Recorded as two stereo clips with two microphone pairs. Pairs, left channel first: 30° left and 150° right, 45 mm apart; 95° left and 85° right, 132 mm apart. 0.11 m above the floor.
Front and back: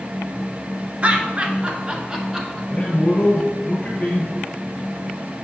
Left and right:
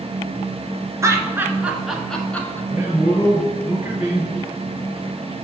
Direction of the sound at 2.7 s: 15° right.